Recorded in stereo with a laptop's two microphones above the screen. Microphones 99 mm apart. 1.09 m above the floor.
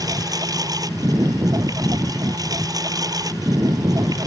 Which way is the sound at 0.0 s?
40° right (ahead or behind).